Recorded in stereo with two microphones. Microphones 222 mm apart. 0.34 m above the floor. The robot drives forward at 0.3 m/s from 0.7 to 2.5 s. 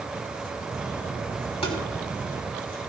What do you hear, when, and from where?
1.6 s tapping: 25° left (ahead or behind), 3 m